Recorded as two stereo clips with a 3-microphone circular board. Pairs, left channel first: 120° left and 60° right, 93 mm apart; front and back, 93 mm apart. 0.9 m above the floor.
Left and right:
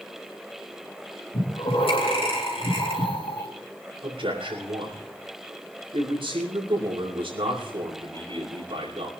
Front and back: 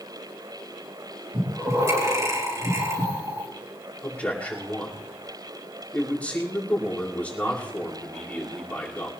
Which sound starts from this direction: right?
A man speaking, at 4.0 s.